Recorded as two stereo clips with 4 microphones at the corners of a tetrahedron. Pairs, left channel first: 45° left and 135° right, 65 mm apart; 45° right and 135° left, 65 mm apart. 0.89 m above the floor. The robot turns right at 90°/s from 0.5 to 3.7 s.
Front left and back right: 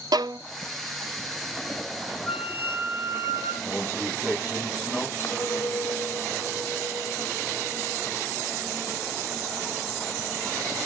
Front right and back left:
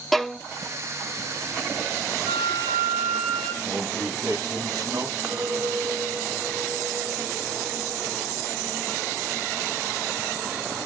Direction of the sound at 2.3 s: 130° left.